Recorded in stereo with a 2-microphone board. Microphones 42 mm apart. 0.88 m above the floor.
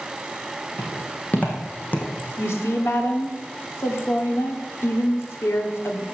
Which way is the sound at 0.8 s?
35° left (ahead or behind).